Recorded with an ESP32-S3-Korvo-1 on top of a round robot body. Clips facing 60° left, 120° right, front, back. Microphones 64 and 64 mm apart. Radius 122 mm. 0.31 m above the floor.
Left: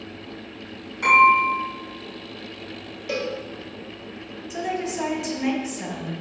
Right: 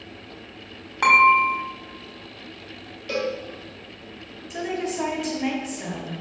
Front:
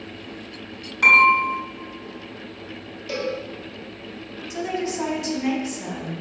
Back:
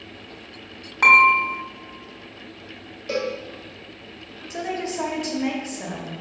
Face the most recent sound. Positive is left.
turn(degrees=145)